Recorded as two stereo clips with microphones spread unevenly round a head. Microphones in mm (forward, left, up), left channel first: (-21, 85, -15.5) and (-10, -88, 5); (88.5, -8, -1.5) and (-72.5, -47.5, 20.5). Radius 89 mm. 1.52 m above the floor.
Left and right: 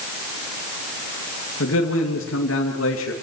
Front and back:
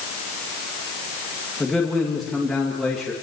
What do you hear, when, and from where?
1.6 s a man speaking: 100° left, 2.5 m